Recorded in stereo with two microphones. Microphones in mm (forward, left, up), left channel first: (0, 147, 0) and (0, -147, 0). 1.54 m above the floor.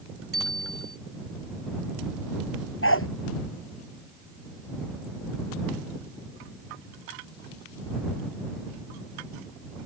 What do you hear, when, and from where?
0.3 s a bicycle bell: 50° right (ahead or behind)
2.8 s a dog barking: 45° left (ahead or behind)